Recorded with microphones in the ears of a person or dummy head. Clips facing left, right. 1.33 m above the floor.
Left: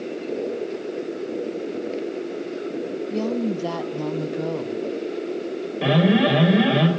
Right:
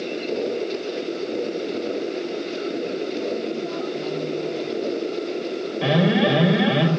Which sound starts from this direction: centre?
An alarm, at 5.8 s.